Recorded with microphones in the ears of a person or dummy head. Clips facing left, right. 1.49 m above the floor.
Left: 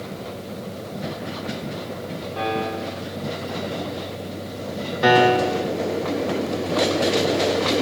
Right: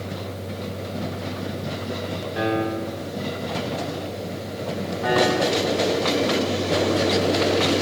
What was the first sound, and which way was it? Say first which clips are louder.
A piano: right 2 dB; 15° right (ahead or behind).